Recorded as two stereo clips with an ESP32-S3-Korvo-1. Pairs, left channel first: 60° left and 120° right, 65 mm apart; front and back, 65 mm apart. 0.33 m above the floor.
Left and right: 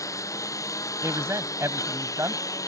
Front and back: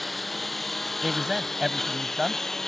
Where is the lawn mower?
90° left; by 2.7 s 85° left.